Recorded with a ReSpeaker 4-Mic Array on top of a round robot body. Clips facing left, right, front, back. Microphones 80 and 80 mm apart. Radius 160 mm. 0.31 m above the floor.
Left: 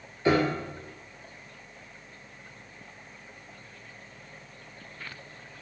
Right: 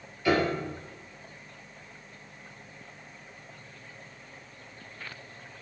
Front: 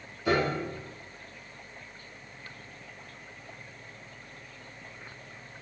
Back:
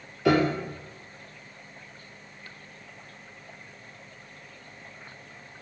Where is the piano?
155° left, 2.5 m.